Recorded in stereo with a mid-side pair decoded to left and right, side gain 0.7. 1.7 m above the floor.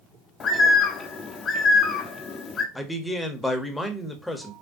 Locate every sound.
0.4 s a bird: 35° left, 0.7 m
2.8 s a man speaking: 10° left, 0.9 m